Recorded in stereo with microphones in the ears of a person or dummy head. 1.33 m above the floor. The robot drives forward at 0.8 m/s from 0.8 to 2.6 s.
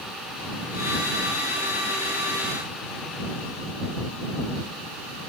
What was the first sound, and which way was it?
Only background noise.